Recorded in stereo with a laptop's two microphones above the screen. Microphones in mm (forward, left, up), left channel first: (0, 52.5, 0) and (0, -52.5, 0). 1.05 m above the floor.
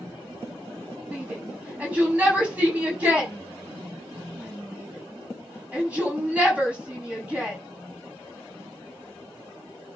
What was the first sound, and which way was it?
A shout, 15° right (ahead or behind).